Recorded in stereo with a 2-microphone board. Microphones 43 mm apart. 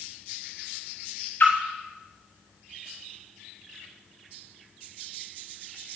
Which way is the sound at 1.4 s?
50° left (ahead or behind).